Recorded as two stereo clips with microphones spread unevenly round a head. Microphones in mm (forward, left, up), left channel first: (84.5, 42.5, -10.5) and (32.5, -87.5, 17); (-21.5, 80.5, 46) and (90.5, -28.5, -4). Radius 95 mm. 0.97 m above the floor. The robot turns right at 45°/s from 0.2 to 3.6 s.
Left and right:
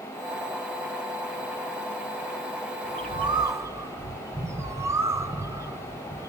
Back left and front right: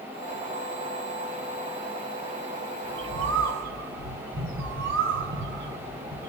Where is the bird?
80° right, 0.8 m; by 6.3 s 45° right, 0.8 m.